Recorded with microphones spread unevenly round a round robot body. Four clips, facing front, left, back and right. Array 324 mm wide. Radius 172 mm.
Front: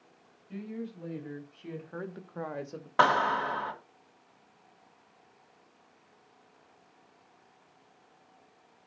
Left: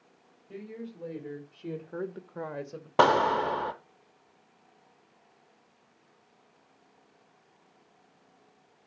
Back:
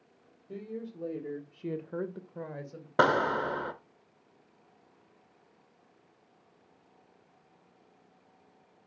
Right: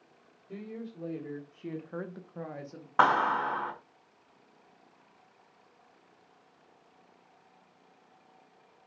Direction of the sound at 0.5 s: 175° right.